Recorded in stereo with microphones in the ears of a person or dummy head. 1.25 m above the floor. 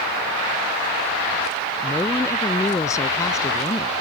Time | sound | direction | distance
1.8 | a woman speaking | 10° left (ahead or behind) | ?